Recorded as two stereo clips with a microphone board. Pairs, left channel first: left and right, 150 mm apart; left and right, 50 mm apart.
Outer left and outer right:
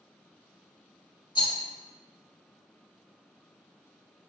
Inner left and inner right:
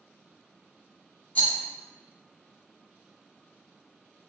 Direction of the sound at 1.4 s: 30° left (ahead or behind).